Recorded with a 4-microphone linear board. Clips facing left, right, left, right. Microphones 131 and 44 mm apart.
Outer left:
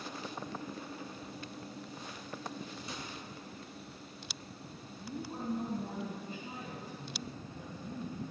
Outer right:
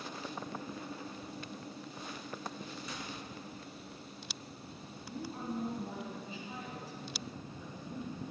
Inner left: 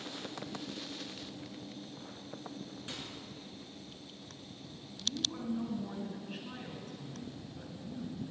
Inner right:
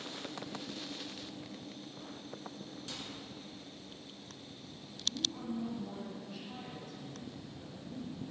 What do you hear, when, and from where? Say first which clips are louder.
2.9 s a microwave: even, inner left 1 dB; 25° left (ahead or behind), 2.5 m
5.0 s a woman speaking: outer left 2 dB, inner left 1 dB; 55° left (ahead or behind), 2.5 m